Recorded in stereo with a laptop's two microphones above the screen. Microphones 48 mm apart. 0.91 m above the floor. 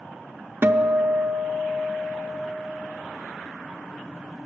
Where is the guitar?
50° right (ahead or behind), 0.5 m.